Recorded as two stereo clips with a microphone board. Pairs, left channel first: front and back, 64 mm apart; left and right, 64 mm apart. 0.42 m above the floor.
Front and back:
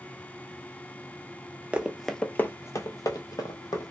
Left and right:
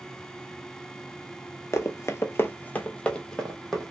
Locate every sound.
1.7 s running footsteps: 115° left, 0.5 m; by 3.9 s 5° left, 1.2 m